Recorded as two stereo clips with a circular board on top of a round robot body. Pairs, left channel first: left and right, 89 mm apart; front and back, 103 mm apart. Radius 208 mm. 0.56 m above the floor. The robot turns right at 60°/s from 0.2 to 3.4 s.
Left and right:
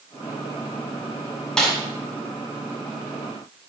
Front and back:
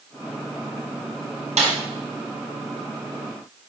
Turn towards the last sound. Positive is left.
turn(degrees=-75)